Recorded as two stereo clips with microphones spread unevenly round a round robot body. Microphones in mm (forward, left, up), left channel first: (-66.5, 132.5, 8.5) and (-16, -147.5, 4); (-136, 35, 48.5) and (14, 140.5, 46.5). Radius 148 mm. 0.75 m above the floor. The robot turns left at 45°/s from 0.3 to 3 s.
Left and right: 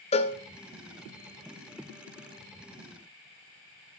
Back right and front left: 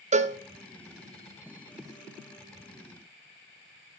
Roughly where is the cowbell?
Ahead left.